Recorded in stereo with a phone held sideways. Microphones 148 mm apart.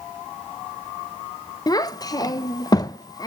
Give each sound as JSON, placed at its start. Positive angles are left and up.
{"t": 1.7, "sound": "a child speaking", "side_deg": 25, "distance_m": 0.5}